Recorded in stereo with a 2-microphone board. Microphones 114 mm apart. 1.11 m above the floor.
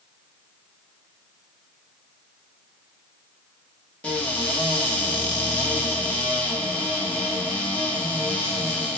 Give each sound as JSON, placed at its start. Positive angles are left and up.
{"t": 4.0, "sound": "a cupboard door", "side_deg": 10, "distance_m": 0.8}